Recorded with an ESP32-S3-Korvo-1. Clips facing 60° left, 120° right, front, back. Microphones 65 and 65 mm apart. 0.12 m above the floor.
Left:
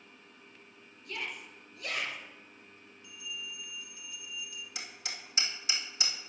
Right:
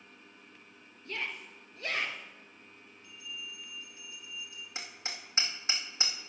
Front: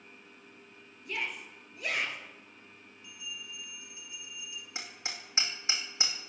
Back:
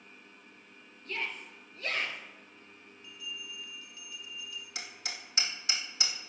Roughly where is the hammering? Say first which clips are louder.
Right 3 dB, front 2 dB; ahead right.